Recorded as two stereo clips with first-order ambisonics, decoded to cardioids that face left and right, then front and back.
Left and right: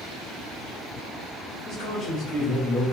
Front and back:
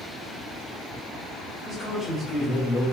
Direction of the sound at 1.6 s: 95° left.